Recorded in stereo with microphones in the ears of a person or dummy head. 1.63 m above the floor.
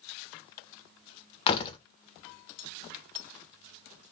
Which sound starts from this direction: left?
A door slam, at 1.5 s.